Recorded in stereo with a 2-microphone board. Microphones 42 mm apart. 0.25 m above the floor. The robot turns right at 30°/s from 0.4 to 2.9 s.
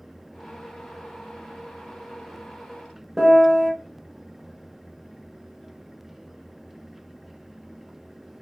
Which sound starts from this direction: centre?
A piano, at 3.2 s.